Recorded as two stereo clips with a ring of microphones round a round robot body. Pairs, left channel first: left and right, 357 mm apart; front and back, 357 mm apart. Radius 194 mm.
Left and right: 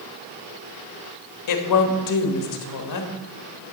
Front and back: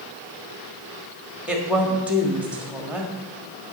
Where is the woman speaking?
95° left, 1.4 m.